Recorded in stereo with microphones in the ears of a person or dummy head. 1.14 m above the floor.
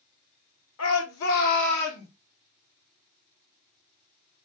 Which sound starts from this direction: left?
A shout, at 0.8 s.